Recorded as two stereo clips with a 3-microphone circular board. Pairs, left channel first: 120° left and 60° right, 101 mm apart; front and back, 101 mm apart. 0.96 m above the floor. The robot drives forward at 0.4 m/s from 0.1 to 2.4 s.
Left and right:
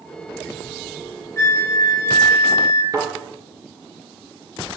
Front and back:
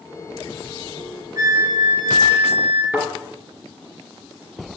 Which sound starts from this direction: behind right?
A thud, at 2.9 s.